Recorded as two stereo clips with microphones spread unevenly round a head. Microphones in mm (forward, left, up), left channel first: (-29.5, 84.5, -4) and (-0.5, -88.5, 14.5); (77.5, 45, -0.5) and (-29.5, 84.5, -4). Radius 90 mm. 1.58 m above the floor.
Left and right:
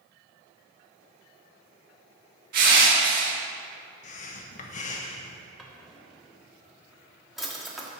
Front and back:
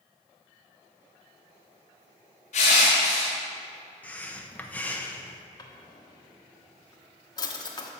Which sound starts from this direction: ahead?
A drawer, at 5.6 s.